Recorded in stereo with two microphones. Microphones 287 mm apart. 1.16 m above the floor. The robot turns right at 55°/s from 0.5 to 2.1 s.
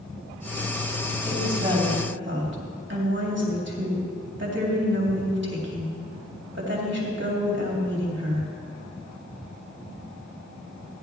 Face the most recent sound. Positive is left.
turn(degrees=-140)